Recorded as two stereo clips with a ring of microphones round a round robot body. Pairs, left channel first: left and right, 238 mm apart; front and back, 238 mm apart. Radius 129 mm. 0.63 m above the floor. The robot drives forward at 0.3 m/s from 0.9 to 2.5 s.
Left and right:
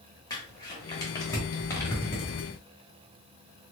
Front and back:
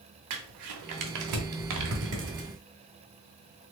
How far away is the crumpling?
About 0.8 m.